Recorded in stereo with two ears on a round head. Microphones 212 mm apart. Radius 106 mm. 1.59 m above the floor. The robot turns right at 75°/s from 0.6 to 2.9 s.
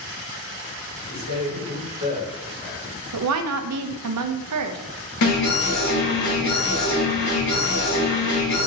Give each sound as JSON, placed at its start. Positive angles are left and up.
{"t": 1.1, "sound": "a man speaking", "azimuth_deg": -100, "distance_m": 1.7}
{"t": 3.1, "sound": "a woman speaking", "side_deg": -75, "distance_m": 0.6}
{"t": 5.2, "sound": "an alarm", "side_deg": 80, "distance_m": 2.5}